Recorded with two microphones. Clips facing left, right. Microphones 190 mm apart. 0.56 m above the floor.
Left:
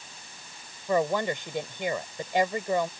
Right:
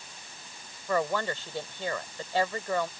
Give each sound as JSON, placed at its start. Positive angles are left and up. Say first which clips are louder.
{"t": 0.9, "sound": "a woman speaking", "louder": "left 3 dB", "side_deg": 15}